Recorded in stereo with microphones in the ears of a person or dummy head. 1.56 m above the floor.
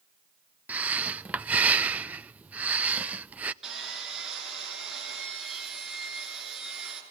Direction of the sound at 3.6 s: Centre (ahead or behind).